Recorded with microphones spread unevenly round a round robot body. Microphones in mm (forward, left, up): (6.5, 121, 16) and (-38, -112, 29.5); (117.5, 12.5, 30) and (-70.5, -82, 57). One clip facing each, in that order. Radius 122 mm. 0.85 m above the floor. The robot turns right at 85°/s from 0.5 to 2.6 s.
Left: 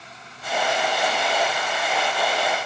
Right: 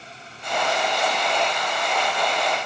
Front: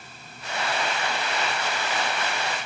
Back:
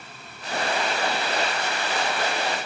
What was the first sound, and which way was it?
Only background noise.